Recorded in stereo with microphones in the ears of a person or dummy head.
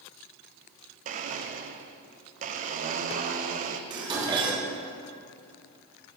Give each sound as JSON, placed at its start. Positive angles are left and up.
{"t": 1.1, "sound": "a blender", "side_deg": -40, "distance_m": 0.8}
{"t": 3.9, "sound": "dishes clattering", "side_deg": -20, "distance_m": 2.5}